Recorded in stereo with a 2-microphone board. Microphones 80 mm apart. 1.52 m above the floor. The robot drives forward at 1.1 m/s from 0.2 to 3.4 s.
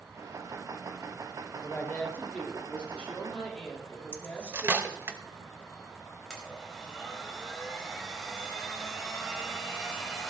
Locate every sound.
1.6 s a woman speaking: 25° left (ahead or behind), 2.0 m; by 5.1 s 15° left (ahead or behind), 4 m
4.1 s cutlery clinking: 30° right (ahead or behind), 0.9 m
6.3 s a blender: 5° right (ahead or behind), 4 m